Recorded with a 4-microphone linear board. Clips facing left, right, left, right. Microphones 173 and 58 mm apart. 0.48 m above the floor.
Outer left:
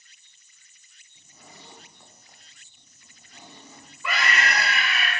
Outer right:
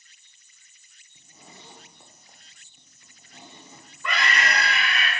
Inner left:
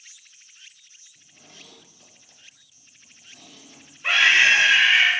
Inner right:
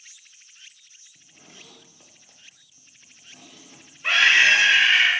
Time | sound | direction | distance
1.1 | a zipper | 20° right (ahead or behind) | 0.7 m
4.0 | a scream | 5° left (ahead or behind) | 0.8 m